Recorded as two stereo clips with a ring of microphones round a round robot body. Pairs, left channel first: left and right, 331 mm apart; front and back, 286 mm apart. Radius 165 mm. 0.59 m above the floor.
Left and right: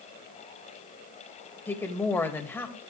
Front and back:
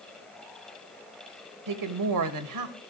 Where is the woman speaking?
175° left, 2 m.